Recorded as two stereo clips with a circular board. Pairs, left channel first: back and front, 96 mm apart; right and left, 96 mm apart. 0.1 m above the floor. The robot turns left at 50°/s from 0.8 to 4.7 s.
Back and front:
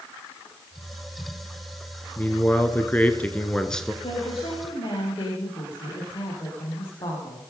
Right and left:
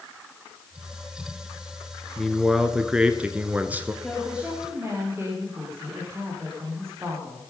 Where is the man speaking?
170° right, 1.3 m; by 3.9 s 100° left, 1.3 m.